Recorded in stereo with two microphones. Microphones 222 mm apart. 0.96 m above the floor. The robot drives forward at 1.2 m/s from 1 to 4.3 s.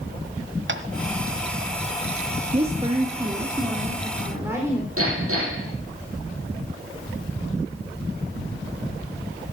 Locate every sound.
0.7 s tapping: 60° right (ahead or behind), 1.3 m
2.5 s a woman speaking: 30° right (ahead or behind), 1.5 m; by 4.9 s 10° right (ahead or behind), 3.5 m
5.0 s hammering: 80° right, 8 m